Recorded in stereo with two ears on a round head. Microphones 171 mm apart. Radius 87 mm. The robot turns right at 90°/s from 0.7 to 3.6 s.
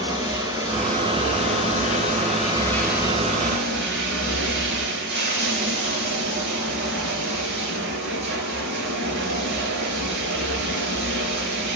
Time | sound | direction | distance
0.0 | running water | 15° right | 4 m